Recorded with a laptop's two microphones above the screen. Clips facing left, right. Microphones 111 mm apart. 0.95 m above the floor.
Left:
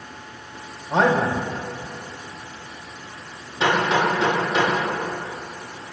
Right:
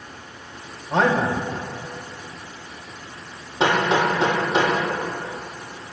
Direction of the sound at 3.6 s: 35° right (ahead or behind).